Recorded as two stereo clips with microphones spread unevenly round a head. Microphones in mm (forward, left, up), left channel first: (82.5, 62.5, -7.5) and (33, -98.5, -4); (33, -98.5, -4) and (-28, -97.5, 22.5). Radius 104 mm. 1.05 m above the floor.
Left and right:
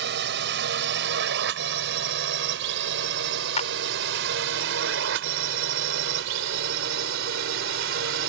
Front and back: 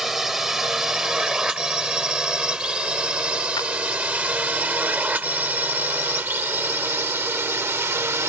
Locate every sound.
0.0 s a drone: 100° right; by 8.3 s 140° right
3.6 s a clap: 25° left